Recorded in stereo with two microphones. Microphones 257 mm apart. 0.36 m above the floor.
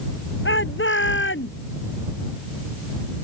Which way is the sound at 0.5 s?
50° left (ahead or behind).